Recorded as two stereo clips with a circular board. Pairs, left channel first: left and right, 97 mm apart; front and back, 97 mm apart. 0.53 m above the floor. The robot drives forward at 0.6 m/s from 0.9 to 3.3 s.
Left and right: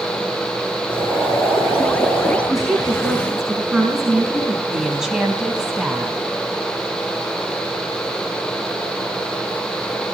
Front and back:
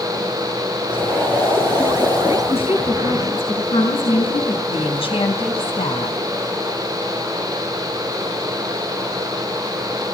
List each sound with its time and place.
0.9 s boiling: 65° left, 5 m; by 2.4 s 75° left, 5 m
2.5 s a woman speaking: 5° right, 5 m
4.7 s a woman speaking: 5° right, 4 m